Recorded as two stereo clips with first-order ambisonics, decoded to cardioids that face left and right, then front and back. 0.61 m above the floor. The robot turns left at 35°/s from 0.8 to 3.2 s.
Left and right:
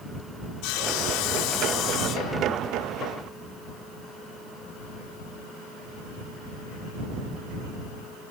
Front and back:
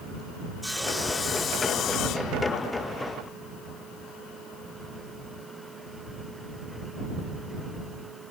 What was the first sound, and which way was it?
Sawing, 85° left.